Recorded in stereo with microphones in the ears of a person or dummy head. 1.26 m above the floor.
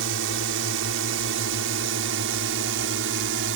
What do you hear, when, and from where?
0.0 s a drone: 60° right (ahead or behind)